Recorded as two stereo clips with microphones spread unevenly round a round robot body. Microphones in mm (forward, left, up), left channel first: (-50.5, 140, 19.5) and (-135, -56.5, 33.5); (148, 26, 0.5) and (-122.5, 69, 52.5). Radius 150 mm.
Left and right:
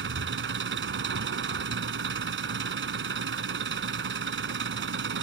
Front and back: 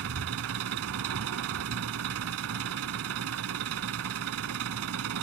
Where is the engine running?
140° right.